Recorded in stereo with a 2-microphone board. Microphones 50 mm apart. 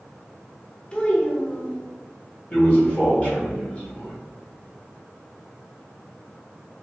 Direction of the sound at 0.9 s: 20° left (ahead or behind).